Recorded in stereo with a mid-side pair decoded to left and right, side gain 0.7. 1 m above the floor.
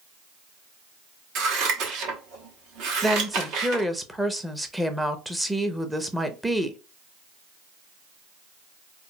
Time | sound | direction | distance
1.4 | scissors | 60° right | 1.1 m
3.0 | a woman speaking | 5° right | 0.6 m